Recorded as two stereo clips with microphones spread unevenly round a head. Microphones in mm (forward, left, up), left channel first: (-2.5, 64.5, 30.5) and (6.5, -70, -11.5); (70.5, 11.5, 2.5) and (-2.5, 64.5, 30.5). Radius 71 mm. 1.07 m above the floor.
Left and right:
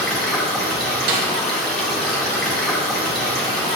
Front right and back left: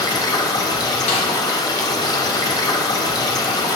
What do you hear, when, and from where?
0.0 s running water: 10° left, 1.8 m
1.1 s a snare drum: 70° right, 1.6 m